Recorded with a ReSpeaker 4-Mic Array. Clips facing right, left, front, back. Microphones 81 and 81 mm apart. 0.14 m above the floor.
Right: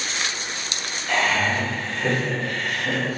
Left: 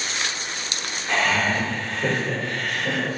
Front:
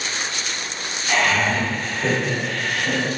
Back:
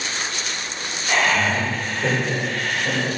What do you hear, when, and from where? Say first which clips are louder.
1.1 s laughter: even, even; 90° left, 1.7 m